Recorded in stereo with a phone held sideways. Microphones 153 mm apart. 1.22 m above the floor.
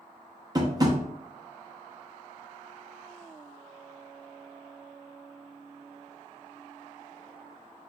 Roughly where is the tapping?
Right.